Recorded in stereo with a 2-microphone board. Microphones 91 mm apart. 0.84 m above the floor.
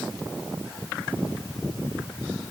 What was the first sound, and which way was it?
Only background noise.